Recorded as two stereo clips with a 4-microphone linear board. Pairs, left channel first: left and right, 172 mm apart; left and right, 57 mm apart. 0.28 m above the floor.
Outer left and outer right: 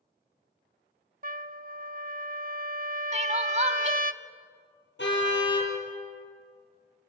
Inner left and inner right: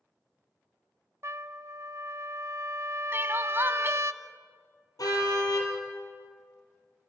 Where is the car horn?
80° left, 4.5 m.